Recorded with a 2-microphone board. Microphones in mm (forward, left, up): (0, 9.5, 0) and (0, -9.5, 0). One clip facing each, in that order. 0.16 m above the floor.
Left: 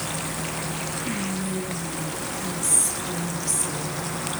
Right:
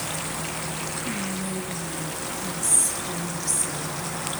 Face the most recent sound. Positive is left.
turn(degrees=0)  # may be behind; listen again after turning